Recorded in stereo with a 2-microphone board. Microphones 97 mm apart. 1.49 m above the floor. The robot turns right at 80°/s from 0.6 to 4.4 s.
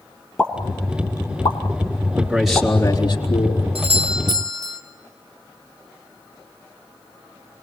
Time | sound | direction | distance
0.4 | a pop | 10° left (ahead or behind) | 2.5 m
2.2 | a man speaking | 25° right | 3 m
3.8 | a doorbell | 95° right | 1.5 m